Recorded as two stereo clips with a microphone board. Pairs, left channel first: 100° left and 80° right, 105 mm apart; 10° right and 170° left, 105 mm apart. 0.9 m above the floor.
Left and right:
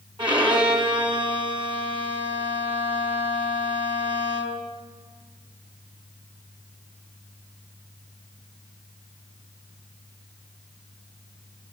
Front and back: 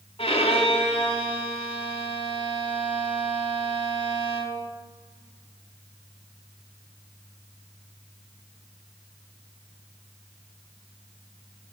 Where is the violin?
40° right, 3 m.